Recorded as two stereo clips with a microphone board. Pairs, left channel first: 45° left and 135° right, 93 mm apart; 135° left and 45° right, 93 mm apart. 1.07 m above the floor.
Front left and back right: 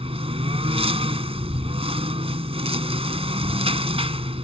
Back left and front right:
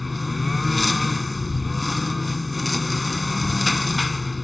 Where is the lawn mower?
135° right.